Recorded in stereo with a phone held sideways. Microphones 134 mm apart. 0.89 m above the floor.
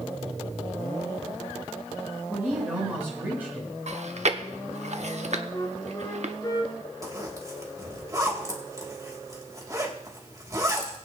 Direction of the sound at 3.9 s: 60° right (ahead or behind).